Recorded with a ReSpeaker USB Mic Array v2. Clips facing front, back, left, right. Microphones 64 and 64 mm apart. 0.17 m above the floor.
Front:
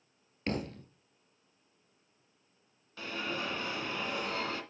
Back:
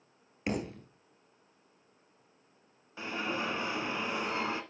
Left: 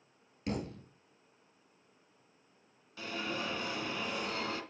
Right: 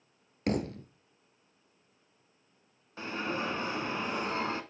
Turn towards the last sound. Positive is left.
turn(degrees=-125)